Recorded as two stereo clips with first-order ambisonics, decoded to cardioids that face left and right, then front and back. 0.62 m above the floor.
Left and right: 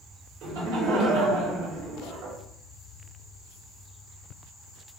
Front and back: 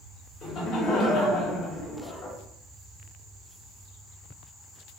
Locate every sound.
0.4 s laughter: 60° right, 2.5 m